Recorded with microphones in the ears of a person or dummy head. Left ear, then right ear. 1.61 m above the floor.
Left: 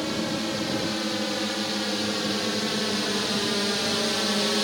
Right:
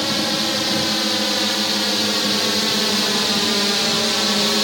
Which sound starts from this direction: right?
A drone, at 0.0 s.